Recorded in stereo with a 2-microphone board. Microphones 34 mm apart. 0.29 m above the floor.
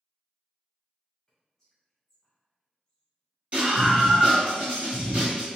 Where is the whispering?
Centre (ahead or behind), 1.3 m.